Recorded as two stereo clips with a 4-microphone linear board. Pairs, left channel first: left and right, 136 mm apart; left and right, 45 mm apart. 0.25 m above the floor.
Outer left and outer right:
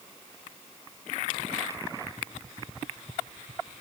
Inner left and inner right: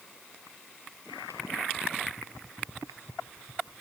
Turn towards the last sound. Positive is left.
No sound to turn to.